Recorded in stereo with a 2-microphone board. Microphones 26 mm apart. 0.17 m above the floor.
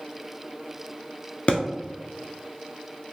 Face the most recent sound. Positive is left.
turn(degrees=50)  # may be behind; listen again after turning